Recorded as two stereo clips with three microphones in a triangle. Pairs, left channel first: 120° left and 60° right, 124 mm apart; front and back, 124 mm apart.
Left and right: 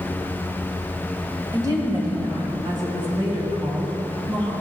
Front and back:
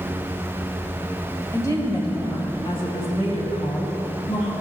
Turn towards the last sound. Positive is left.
turn(degrees=-15)